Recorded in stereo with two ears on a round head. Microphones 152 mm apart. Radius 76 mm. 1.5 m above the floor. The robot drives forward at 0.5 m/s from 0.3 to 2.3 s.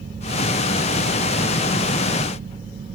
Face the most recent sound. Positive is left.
No sound to turn to.